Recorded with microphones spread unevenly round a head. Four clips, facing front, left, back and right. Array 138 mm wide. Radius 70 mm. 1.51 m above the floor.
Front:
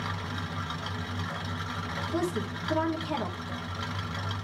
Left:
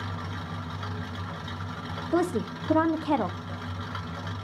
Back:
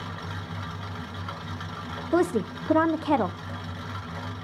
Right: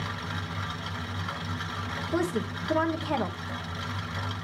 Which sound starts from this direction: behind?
A woman speaking, at 2.1 s.